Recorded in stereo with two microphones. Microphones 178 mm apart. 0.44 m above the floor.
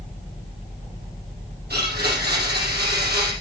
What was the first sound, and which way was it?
A blender, 65° right (ahead or behind).